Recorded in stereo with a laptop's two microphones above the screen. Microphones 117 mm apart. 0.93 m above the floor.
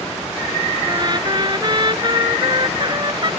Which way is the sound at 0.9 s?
40° right (ahead or behind).